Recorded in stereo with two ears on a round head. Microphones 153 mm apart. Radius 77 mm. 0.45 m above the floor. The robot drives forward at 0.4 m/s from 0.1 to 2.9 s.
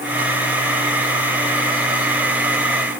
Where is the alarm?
No alarm in this recording.